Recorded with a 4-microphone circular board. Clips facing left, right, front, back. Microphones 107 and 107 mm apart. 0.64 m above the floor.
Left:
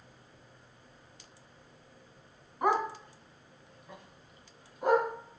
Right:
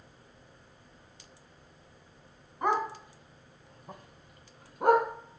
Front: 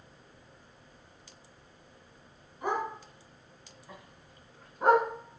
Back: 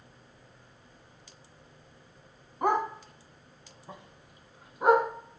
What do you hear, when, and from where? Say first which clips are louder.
2.6 s a dog barking: left 1 dB, back 5 dB; 170° left, 1.3 m; by 5.1 s 90° right, 1.8 m